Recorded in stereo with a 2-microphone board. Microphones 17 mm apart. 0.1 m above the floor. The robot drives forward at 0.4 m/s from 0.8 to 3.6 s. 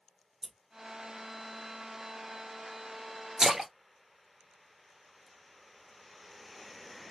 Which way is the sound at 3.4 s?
35° right (ahead or behind).